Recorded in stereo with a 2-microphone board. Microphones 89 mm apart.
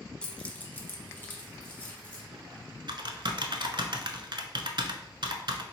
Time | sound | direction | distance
0.2 | keys jangling | 10° left (ahead or behind) | 0.8 m
2.3 | typing on a keyboard | 60° right (ahead or behind) | 0.5 m